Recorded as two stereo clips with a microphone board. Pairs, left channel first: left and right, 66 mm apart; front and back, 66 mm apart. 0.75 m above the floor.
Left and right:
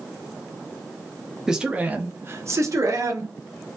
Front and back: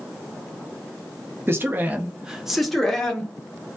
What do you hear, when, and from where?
1.5 s a man speaking: 165° right, 0.7 m; by 3.3 s 75° right, 1.0 m